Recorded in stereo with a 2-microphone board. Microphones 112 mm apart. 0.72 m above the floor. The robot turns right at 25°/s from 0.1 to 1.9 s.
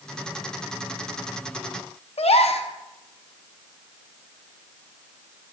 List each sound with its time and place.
2.2 s a gasp: 75° left (ahead or behind), 0.5 m